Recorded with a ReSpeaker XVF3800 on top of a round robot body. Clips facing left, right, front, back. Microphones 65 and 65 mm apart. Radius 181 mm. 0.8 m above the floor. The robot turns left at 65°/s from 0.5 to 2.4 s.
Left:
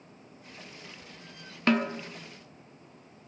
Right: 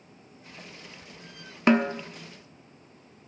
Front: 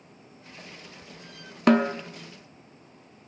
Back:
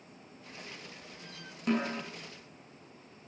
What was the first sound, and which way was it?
A snare drum, 20° right.